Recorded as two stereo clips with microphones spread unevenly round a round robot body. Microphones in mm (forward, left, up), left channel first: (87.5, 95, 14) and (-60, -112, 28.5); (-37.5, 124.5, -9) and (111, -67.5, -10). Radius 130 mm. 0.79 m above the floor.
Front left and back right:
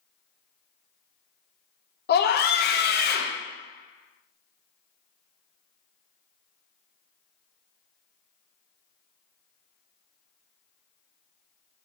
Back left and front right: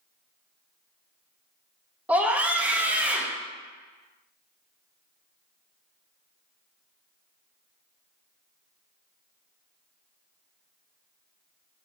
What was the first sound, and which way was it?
A scream, 30° left.